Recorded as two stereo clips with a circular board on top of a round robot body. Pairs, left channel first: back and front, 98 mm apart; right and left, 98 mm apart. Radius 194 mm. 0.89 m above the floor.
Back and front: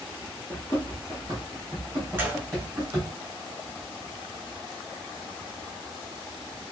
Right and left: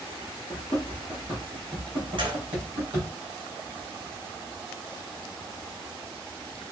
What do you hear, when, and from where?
0.5 s running footsteps: 80° right, 0.9 m; by 3.1 s 65° left, 2.0 m
2.2 s a gunshot: 65° left, 2.0 m